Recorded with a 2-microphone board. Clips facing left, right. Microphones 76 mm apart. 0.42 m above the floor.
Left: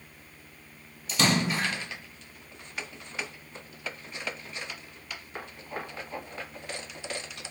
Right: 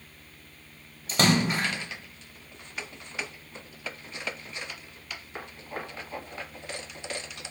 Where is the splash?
45° right (ahead or behind), 0.8 m.